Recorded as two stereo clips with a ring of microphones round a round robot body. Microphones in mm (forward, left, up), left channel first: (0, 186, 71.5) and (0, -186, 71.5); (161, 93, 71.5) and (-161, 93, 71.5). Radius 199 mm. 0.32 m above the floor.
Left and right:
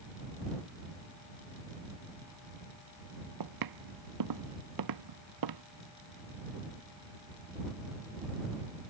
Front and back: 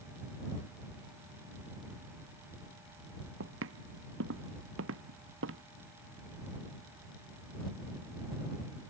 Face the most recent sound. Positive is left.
turn(degrees=-125)